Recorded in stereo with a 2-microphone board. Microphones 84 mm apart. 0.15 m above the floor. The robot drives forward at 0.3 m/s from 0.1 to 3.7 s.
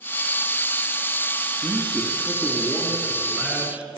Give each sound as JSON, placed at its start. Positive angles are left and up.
{"t": 1.6, "sound": "a man speaking", "side_deg": -20, "distance_m": 1.5}